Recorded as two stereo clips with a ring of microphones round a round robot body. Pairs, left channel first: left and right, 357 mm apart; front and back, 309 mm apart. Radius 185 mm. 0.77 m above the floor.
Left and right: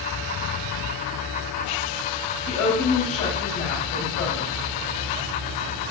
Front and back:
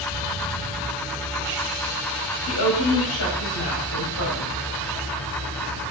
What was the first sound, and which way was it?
A woman speaking, 35° left.